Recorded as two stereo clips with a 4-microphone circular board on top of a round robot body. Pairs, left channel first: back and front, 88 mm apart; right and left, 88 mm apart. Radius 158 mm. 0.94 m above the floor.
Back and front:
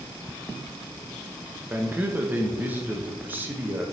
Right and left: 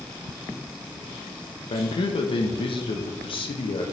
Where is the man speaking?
70° right, 0.7 m.